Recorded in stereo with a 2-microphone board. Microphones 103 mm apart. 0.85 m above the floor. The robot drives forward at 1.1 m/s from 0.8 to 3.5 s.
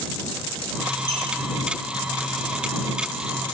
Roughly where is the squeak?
Left.